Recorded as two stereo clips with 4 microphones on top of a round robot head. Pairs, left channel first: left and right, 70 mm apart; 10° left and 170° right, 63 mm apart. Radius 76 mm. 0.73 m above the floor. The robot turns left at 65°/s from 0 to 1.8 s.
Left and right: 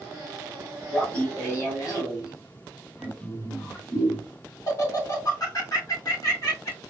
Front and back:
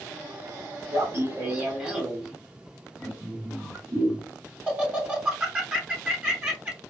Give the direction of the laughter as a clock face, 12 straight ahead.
6 o'clock.